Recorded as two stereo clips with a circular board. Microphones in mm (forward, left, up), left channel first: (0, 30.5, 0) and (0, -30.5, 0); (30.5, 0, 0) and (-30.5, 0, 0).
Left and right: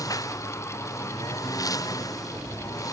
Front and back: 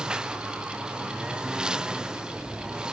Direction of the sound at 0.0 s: 105° left.